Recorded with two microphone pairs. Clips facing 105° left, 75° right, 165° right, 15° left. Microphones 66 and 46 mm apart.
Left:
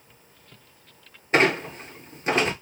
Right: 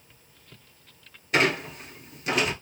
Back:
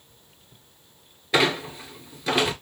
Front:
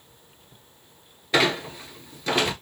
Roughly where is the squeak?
Left.